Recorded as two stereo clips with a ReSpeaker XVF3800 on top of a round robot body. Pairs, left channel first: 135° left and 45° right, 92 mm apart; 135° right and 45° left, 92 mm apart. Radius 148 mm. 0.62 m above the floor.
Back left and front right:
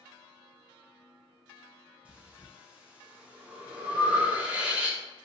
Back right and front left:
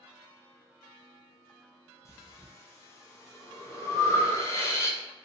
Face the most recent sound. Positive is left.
turn(degrees=-115)